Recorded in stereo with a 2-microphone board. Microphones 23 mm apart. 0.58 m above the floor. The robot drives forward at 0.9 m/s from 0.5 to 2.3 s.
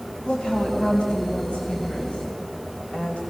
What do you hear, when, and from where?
0.2 s a woman speaking: 45° left (ahead or behind), 4 m; by 3.2 s 65° left (ahead or behind), 3 m